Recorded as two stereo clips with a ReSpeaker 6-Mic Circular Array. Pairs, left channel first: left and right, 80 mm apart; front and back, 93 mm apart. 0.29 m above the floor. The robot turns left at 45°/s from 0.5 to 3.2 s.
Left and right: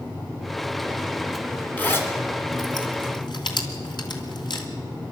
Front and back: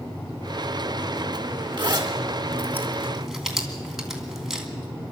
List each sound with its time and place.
1.8 s a zipper: 160° left, 2.5 m; by 4.7 s 95° left, 2.5 m